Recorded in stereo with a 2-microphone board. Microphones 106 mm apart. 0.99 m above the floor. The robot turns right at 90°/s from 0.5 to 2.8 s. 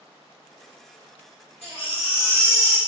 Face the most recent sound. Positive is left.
turn(degrees=-155)